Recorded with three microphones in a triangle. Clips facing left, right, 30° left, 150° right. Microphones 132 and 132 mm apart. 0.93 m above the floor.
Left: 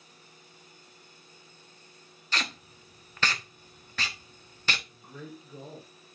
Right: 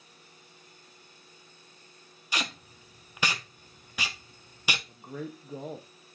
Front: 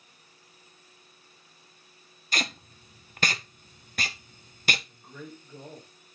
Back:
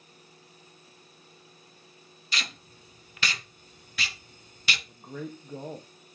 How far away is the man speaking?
About 0.8 m.